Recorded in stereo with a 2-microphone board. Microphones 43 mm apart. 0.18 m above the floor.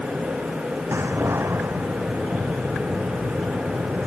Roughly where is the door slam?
Right.